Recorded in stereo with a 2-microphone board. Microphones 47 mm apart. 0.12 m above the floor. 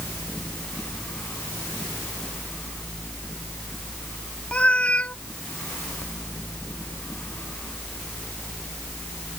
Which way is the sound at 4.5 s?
25° left (ahead or behind).